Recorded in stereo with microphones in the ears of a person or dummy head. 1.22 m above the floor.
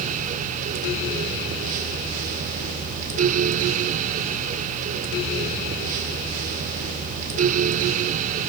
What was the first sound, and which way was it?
Only background noise.